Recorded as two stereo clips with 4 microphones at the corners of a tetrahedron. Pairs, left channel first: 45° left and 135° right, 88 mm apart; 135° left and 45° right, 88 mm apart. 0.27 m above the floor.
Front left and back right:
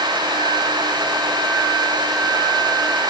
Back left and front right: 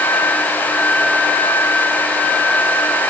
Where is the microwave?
I don't hear a microwave.